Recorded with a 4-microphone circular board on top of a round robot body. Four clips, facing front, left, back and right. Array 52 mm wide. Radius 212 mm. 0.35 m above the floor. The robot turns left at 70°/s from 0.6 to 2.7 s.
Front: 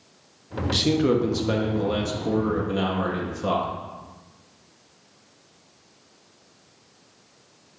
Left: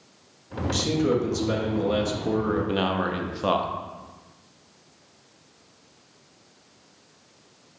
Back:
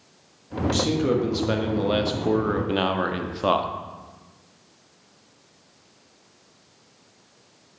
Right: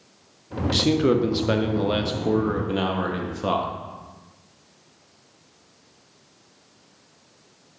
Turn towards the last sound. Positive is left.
turn(degrees=170)